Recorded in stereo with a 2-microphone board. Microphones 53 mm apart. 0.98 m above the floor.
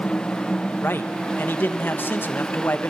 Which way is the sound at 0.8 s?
40° left (ahead or behind).